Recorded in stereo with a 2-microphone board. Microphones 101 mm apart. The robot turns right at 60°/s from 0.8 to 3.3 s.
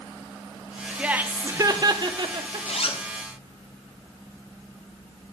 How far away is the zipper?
About 0.6 m.